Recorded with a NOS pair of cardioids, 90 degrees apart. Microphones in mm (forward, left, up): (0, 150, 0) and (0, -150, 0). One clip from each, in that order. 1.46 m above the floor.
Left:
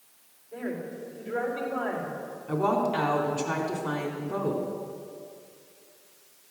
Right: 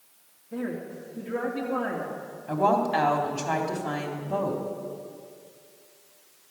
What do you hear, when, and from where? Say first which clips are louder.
0.5 s a woman speaking: right 1 dB; 50° right, 3 m
2.5 s a woman speaking: right 3 dB; 25° right, 3.5 m